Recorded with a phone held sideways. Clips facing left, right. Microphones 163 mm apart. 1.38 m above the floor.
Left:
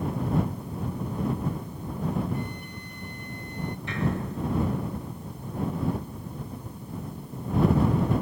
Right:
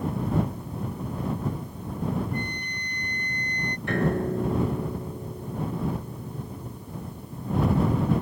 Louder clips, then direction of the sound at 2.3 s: Right 1 dB; 5° left (ahead or behind).